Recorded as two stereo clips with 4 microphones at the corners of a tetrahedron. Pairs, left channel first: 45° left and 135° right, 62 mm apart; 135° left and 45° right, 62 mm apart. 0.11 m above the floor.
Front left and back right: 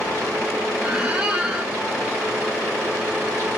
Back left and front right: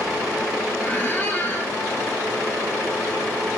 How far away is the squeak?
About 0.9 m.